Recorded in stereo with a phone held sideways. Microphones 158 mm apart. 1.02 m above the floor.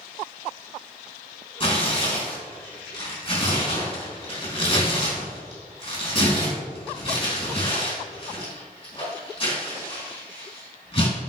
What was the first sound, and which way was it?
Tearing paper, 35° left (ahead or behind).